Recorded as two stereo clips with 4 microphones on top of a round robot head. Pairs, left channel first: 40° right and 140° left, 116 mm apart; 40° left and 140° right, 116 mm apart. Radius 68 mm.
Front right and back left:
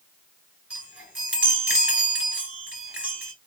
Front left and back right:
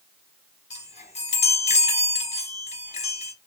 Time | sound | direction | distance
0.7 | a chime | 60° left | 2.5 m